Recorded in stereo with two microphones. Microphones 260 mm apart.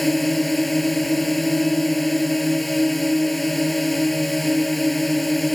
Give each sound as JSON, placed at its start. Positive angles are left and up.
{"t": 0.0, "sound": "a drone", "side_deg": 0}